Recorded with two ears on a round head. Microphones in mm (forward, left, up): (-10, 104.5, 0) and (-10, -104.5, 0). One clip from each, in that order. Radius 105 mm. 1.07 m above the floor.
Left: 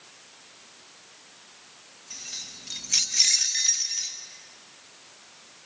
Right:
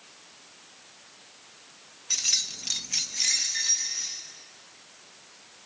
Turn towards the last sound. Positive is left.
turn(degrees=65)  # may be behind; listen again after turning